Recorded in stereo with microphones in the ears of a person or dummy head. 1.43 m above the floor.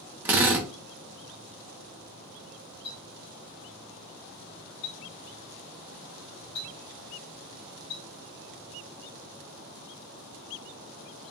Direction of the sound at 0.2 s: 15° right (ahead or behind).